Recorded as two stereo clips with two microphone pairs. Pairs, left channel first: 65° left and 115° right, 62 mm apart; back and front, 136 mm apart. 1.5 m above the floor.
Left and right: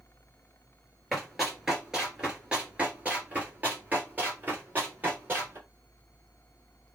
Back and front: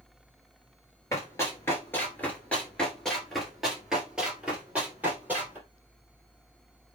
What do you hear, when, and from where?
1.1 s running footsteps: 150° left, 1.6 m; by 5.6 s 75° right, 2.5 m